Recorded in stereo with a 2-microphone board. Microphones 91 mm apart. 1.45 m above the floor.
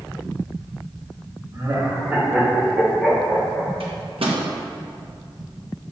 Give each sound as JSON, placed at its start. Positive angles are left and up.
{"t": 1.5, "sound": "laughter", "side_deg": -40, "distance_m": 2.0}
{"t": 3.8, "sound": "a microwave", "side_deg": -85, "distance_m": 1.4}